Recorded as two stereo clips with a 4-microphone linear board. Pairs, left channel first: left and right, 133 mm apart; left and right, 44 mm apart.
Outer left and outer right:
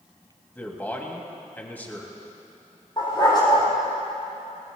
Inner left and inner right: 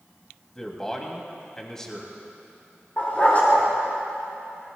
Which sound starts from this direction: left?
A dog barking, at 3.0 s.